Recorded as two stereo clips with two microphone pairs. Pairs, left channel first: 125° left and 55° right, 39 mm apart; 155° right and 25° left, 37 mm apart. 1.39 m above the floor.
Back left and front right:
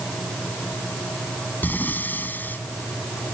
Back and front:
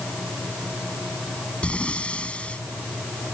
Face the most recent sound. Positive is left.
turn(degrees=150)